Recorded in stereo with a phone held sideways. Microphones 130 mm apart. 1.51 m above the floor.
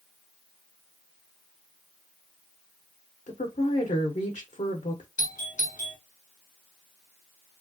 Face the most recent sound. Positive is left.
turn(degrees=75)  # may be behind; listen again after turning